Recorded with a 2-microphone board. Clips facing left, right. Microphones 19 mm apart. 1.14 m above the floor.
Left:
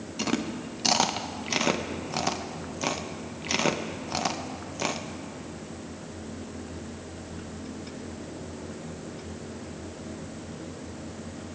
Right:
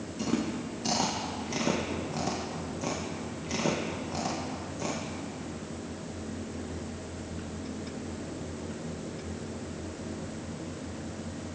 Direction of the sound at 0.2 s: 60° left (ahead or behind).